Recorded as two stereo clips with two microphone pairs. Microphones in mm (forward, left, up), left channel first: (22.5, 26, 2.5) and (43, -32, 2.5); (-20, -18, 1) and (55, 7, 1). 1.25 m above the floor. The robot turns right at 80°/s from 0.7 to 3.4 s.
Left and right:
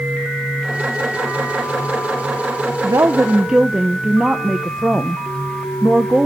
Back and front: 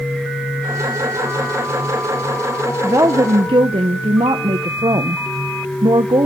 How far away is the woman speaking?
About 0.6 m.